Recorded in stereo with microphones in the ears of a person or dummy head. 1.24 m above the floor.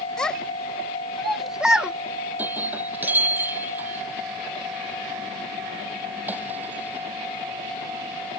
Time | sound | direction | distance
0.2 | a child speaking | 10° left (ahead or behind) | ?
2.4 | breaking glass | centre (ahead or behind) | ?